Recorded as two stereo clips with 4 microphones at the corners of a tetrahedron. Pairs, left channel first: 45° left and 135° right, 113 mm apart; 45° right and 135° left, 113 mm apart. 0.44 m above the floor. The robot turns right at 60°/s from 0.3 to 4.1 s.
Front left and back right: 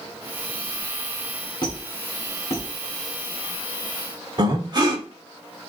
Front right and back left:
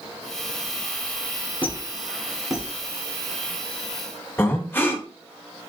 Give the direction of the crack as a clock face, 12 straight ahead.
I don't hear a crack.